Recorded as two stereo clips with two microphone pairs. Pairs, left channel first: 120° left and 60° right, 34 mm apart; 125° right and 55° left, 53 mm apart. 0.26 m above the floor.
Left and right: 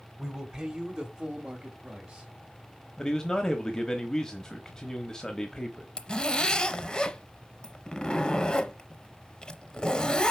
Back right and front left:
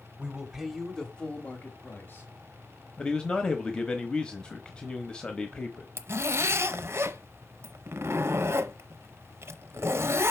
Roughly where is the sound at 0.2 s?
Ahead.